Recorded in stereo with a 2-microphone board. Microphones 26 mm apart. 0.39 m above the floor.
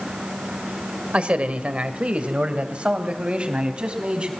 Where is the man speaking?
45° right (ahead or behind), 1.9 m; by 4.3 s 40° right (ahead or behind), 4 m.